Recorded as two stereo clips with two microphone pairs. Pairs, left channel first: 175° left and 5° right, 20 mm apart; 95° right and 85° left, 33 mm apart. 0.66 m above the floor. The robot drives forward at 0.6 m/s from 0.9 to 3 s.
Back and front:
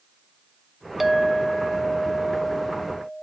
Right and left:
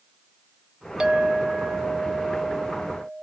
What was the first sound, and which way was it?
A clink, 55° left.